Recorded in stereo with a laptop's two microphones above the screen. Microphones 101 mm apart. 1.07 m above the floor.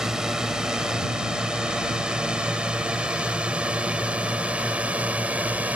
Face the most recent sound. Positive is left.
turn(degrees=-15)  # may be behind; listen again after turning